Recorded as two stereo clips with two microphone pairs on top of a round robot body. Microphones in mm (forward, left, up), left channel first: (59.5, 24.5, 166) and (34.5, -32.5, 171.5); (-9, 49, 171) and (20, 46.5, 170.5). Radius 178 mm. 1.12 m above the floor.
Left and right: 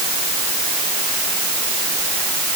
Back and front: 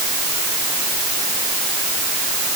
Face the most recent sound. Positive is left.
No sound to turn to.